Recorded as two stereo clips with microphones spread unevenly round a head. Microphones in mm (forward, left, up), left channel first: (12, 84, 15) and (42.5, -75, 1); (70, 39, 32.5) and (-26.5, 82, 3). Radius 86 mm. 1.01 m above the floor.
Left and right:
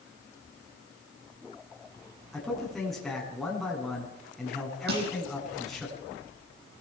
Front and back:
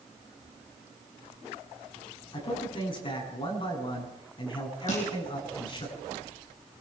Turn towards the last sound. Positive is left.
turn(degrees=-55)